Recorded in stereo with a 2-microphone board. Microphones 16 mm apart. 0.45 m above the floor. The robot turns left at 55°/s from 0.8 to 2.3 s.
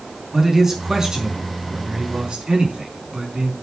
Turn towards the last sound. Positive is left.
turn(degrees=-115)